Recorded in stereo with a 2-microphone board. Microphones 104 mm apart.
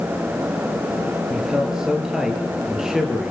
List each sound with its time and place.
1.3 s a man speaking: 5° right (ahead or behind), 4.5 m